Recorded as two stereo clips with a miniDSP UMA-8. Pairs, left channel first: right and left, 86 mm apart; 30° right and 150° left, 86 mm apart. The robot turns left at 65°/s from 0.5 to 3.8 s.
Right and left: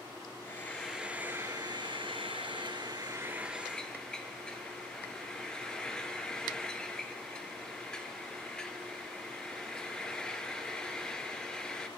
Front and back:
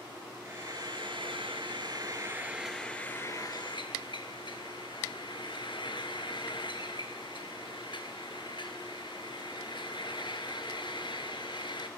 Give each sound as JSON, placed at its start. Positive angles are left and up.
{"t": 0.5, "sound": "frying", "azimuth_deg": -155, "distance_m": 1.6}